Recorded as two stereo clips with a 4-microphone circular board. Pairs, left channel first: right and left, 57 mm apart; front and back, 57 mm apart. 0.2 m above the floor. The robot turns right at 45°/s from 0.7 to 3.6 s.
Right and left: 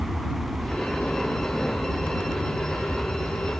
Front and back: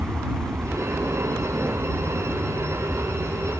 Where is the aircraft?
165° left; by 3.6 s 65° right.